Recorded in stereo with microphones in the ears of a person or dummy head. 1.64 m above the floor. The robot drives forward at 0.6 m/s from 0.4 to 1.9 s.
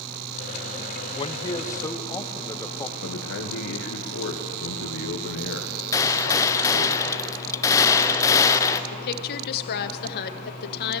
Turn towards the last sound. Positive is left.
turn(degrees=55)  # may be behind; listen again after turning